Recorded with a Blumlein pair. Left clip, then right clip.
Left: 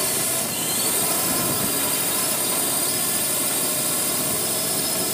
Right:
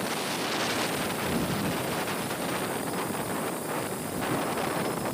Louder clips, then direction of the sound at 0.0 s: Left 4 dB; 40° left.